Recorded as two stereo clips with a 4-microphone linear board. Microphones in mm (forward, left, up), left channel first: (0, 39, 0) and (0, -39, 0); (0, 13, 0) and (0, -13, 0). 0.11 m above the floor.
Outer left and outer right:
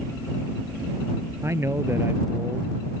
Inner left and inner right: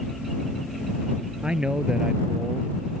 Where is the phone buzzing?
I don't hear a phone buzzing.